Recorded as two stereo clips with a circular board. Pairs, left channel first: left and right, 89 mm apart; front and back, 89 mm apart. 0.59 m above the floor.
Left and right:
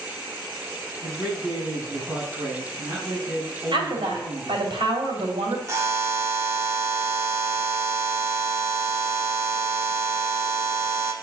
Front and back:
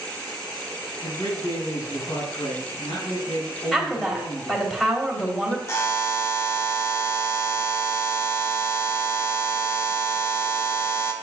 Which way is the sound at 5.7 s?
45° right.